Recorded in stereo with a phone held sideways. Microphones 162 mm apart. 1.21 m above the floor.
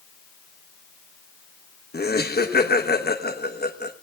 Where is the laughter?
75° left (ahead or behind), 1.1 m.